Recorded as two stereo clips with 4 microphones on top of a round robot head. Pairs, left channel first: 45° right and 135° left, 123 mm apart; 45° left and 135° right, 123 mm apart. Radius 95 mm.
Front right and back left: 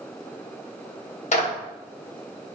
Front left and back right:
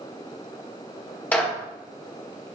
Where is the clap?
30° right, 2.0 m.